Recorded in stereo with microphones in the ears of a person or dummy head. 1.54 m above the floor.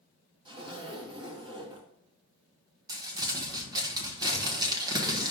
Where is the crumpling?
25° right (ahead or behind), 1.3 m.